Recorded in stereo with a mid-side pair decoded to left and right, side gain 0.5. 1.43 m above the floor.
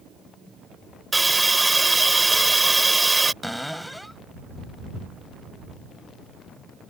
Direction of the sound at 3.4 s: 5° left.